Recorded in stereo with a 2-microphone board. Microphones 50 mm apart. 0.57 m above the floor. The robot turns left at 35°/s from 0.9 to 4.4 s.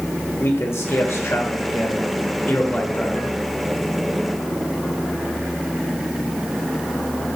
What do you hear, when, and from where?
0.4 s a man speaking: 105° left, 1.5 m; by 3.4 s 20° left, 1.5 m